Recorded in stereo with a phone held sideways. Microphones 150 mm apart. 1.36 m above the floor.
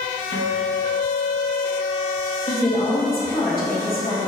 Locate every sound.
0.3 s a guitar: 80° left, 1.7 m
2.5 s a woman speaking: 70° left (ahead or behind), 2 m